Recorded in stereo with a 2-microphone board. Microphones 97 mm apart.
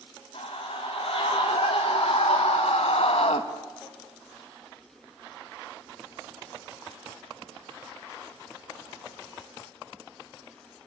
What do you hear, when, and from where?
0.3 s a scream: 75° left (ahead or behind), 5 m